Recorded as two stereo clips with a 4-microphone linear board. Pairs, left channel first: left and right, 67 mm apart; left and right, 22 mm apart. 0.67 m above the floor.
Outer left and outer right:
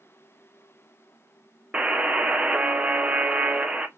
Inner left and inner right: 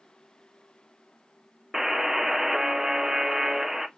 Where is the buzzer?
20° right (ahead or behind), 0.7 m.